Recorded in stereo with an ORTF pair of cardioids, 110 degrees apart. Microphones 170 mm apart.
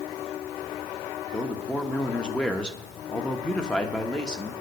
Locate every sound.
1.3 s a man speaking: 5° left, 1.1 m